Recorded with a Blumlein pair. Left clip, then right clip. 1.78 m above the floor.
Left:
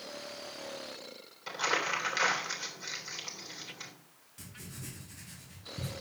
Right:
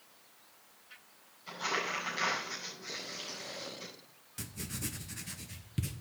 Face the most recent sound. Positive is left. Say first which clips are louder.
# right 6 dB
turn(degrees=-25)